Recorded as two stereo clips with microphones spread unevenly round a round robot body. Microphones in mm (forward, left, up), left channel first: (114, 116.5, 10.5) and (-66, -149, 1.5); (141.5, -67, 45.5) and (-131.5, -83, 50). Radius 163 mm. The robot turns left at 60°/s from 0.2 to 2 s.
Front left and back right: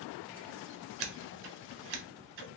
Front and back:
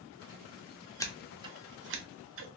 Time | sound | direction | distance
1.0 | scissors | 75° right | 0.7 m